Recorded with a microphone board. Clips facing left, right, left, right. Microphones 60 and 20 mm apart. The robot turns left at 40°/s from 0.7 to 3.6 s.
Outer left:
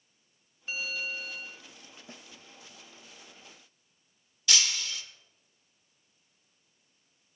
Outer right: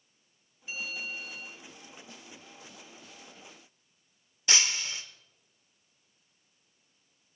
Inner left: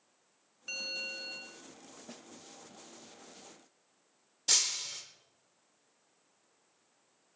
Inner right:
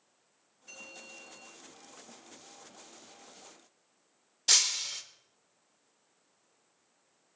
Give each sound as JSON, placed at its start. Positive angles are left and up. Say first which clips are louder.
{"t": 0.7, "sound": "a bell", "louder": "outer left 3 dB, inner left 10 dB", "azimuth_deg": 135, "distance_m": 1.7}
{"t": 2.1, "sound": "a snare drum", "louder": "outer left 1 dB, inner left 3 dB", "side_deg": 40, "distance_m": 0.6}
{"t": 4.5, "sound": "breaking glass", "louder": "outer right 1 dB, inner right 4 dB", "side_deg": -30, "distance_m": 0.6}